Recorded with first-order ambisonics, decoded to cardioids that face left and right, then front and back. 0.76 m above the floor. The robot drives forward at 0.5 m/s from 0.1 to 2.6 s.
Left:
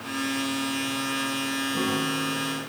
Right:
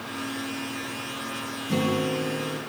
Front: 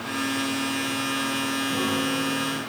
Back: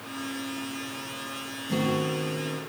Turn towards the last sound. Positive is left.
turn(degrees=-120)